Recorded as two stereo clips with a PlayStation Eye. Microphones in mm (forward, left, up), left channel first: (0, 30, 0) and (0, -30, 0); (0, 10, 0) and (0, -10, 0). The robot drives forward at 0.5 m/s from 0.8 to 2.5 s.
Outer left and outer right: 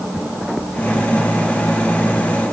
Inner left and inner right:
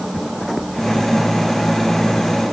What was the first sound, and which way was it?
Only background noise.